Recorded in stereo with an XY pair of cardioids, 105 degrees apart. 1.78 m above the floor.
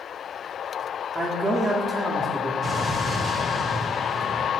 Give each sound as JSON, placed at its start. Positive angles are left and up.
{"t": 1.1, "sound": "a man speaking", "azimuth_deg": -15, "distance_m": 0.6}
{"t": 2.6, "sound": "an explosion", "azimuth_deg": -35, "distance_m": 0.8}